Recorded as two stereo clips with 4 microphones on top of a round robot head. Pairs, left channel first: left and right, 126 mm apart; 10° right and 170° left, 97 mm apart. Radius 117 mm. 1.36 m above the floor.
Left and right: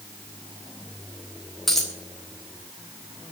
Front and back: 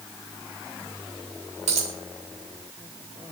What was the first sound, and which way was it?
A dropped coin, straight behind.